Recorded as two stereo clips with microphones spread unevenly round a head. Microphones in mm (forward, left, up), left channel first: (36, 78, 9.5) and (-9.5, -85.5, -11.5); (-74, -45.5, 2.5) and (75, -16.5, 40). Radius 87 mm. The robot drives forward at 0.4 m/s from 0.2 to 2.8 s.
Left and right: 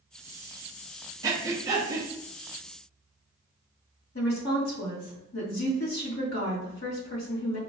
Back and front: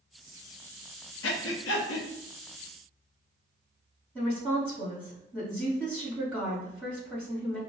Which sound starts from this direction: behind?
Breathing, at 1.2 s.